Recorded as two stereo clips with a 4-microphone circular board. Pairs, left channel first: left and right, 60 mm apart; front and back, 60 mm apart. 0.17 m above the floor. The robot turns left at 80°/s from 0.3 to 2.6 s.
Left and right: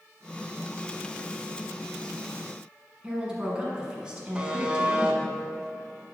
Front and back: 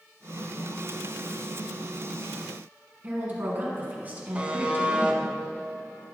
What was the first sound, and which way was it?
A woman speaking, 155° right.